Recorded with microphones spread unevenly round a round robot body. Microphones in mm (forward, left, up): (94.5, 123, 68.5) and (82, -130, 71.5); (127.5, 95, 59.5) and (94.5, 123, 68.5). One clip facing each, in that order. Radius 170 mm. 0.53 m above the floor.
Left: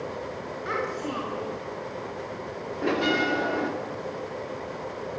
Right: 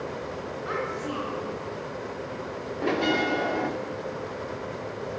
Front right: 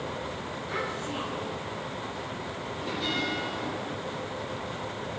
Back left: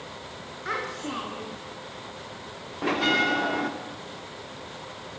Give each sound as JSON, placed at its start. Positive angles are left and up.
{"t": 0.7, "sound": "a child speaking", "azimuth_deg": 155, "distance_m": 5.5}
{"t": 2.8, "sound": "a bell", "azimuth_deg": 175, "distance_m": 1.2}